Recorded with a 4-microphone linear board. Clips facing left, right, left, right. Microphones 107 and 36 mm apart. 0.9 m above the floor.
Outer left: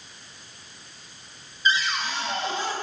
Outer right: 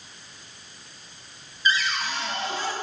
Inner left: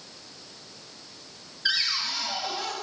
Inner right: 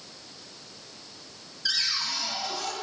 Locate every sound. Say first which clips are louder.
1.6 s a cupboard door: even, inner left 2 dB; 25° left (ahead or behind), 1.7 m